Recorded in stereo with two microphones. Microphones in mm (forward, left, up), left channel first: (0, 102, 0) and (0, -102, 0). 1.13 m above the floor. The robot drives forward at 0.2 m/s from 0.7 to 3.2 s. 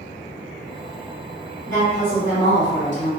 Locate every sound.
1.7 s a woman speaking: 70° left (ahead or behind), 1.7 m; by 3.1 s 65° left (ahead or behind), 1.7 m